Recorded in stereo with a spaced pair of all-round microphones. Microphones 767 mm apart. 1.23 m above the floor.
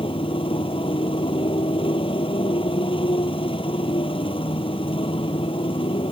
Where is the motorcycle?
5° left (ahead or behind).